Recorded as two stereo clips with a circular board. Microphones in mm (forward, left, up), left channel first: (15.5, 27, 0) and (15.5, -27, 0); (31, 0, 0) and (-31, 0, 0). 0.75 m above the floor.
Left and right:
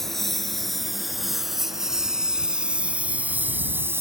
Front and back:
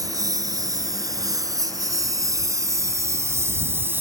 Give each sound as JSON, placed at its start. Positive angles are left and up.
{"t": 0.0, "sound": "a lawn mower", "azimuth_deg": 175}